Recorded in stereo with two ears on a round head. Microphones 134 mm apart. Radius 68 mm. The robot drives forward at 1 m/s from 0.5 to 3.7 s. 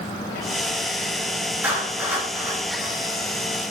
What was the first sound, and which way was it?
A clap, 15° right (ahead or behind).